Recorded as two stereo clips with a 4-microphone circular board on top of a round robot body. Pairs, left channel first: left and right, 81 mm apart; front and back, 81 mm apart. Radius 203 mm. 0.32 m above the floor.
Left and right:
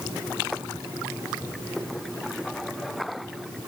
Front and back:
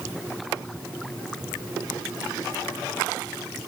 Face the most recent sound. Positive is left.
No sound to turn to.